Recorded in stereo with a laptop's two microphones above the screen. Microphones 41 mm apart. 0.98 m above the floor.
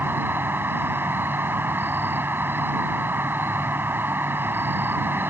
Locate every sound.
0.0 s an insect: 60° right (ahead or behind)